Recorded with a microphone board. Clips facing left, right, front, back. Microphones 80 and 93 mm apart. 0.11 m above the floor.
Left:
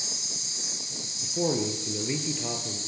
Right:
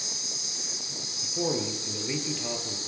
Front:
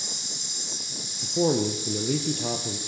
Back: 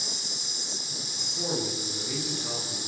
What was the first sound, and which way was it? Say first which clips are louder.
An insect: even, back 1 dB; 130° right.